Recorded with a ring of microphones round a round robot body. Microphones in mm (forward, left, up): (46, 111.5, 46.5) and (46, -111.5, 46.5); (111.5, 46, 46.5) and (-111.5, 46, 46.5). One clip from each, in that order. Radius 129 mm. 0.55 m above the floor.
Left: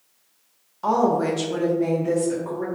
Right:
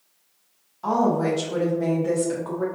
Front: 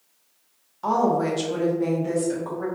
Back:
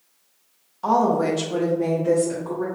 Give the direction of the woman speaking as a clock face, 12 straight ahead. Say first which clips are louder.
Left 2 dB, back 2 dB; 9 o'clock.